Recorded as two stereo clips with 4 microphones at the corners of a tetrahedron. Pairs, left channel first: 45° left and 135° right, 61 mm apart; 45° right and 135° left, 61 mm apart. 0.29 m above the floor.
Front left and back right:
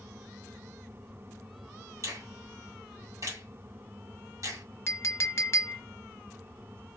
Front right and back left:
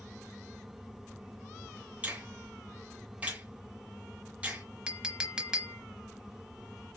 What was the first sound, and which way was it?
A finger snap, 160° right.